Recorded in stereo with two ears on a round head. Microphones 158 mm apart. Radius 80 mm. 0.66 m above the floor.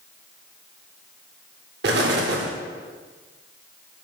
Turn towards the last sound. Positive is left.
turn(degrees=-60)  # may be behind; listen again after turning